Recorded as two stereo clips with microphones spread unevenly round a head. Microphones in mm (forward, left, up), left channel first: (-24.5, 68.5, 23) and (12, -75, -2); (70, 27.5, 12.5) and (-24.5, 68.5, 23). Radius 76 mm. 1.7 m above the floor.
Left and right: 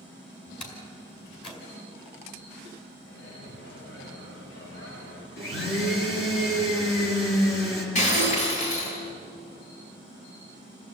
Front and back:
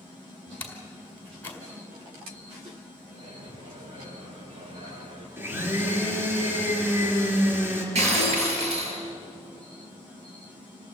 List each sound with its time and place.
0.6 s a door slam: 50° left, 4.5 m
3.1 s a microwave: 120° left, 6 m
5.4 s a blender: 90° left, 5.5 m
8.0 s breaking glass: 145° left, 7 m